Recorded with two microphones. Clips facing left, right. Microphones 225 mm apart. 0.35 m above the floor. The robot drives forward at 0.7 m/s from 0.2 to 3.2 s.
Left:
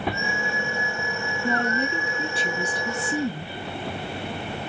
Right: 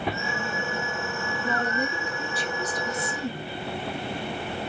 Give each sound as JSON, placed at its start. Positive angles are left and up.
{"t": 1.4, "sound": "a woman speaking", "side_deg": 20, "distance_m": 4.0}